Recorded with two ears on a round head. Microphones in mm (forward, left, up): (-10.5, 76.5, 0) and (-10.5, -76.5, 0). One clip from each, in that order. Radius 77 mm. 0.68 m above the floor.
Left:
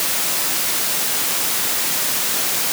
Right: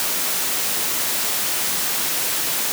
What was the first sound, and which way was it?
Only background noise.